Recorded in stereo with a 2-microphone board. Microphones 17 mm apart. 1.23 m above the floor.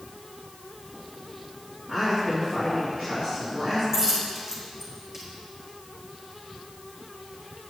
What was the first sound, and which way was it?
A woman speaking, 50° right (ahead or behind).